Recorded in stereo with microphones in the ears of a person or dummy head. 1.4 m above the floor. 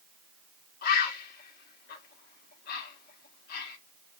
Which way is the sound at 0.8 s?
55° left (ahead or behind).